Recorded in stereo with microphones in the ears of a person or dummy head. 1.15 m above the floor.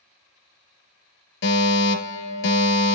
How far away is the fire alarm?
About 3 m.